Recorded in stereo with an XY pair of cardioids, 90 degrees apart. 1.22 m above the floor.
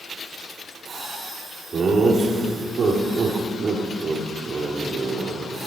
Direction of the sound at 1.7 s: 50° right.